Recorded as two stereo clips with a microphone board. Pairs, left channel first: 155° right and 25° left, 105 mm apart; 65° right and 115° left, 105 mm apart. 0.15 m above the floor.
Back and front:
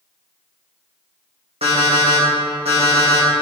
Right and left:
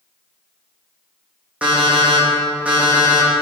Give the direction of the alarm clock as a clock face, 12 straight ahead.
11 o'clock.